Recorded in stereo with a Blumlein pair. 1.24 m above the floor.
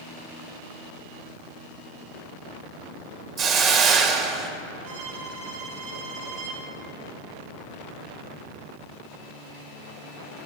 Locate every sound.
3.4 s a hiss: 30° right, 1.7 m
4.8 s a violin: 65° right, 5.5 m